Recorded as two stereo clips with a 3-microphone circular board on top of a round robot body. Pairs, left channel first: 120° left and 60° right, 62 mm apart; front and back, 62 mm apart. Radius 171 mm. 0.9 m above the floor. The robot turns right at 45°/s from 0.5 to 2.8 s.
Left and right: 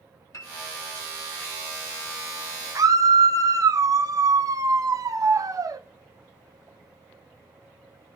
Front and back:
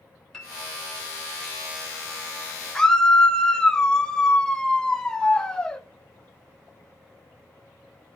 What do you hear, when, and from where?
0.3 s a piano: 80° left, 2.5 m; by 0.5 s 85° left, 2.5 m
2.8 s a scream: 80° right, 0.8 m